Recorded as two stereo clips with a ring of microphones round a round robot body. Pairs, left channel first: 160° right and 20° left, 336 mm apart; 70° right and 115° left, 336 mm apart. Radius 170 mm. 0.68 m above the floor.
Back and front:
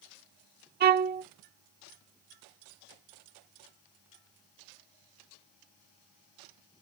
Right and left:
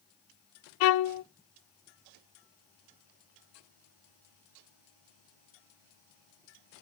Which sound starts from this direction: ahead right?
A violin, at 0.8 s.